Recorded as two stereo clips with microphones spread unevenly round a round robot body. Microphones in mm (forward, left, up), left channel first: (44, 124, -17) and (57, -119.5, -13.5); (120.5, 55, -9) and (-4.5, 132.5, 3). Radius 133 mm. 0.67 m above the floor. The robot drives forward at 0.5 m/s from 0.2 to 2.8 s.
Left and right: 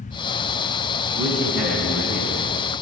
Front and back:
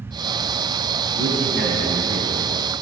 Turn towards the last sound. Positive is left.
turn(degrees=-175)